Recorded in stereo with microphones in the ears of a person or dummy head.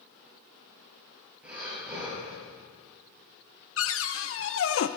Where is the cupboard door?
65° left (ahead or behind), 0.8 m.